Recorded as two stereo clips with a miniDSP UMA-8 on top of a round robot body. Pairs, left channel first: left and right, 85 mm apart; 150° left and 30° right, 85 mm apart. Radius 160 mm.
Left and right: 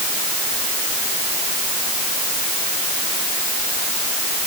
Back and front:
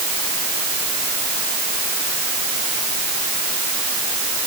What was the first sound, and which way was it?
Only background noise.